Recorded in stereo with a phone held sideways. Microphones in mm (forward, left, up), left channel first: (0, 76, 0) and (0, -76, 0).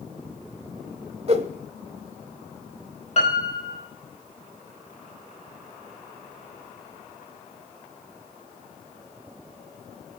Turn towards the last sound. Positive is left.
turn(degrees=50)  # may be behind; listen again after turning